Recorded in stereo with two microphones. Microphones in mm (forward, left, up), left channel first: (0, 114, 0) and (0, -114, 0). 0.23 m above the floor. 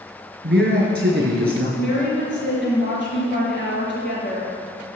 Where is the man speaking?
50° right (ahead or behind), 4.5 m.